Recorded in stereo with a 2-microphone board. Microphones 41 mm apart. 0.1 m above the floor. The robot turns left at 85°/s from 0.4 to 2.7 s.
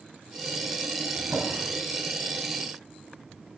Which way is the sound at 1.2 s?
70° right (ahead or behind).